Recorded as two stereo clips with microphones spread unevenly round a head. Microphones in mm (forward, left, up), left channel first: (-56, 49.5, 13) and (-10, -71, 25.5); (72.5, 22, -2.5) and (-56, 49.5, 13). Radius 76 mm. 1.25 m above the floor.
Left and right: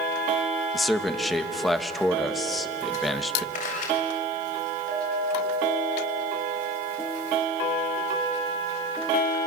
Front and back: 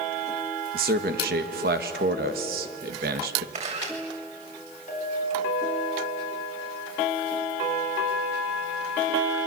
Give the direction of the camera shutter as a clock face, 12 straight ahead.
8 o'clock.